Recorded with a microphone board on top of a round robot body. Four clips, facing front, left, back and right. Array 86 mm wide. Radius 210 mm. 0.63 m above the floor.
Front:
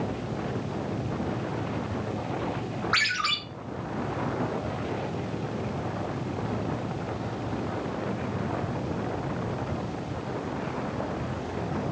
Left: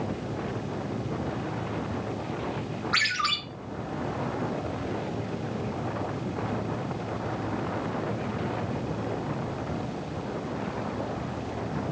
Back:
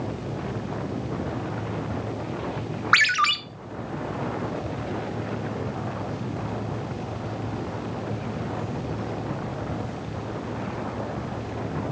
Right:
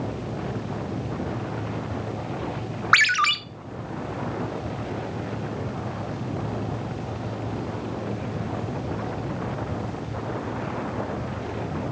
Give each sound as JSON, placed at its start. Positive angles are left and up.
{"t": 2.9, "sound": "a ringtone", "azimuth_deg": -120, "distance_m": 0.8}